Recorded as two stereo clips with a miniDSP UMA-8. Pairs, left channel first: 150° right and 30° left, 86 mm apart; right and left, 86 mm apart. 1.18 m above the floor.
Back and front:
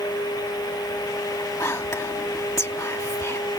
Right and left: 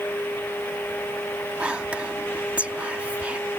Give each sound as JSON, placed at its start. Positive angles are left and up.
{"t": 1.6, "sound": "whispering", "azimuth_deg": 160}